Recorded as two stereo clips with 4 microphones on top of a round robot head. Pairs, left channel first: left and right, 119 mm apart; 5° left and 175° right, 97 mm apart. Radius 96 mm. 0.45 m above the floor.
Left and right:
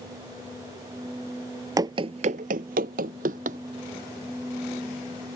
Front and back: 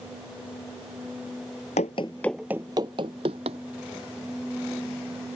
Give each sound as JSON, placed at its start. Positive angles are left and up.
{"t": 1.8, "sound": "running footsteps", "azimuth_deg": -30}